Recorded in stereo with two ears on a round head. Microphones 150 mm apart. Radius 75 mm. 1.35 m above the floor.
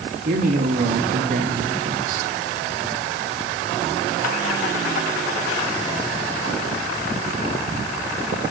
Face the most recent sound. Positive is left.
turn(degrees=-55)  # may be behind; listen again after turning